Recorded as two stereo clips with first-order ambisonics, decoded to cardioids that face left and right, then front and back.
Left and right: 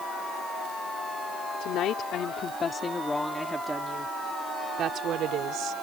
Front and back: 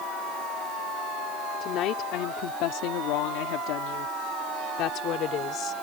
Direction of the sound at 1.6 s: 45° left.